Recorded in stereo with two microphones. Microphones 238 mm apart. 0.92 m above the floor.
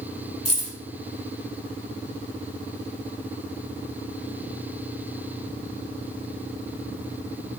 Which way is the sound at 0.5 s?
25° left (ahead or behind).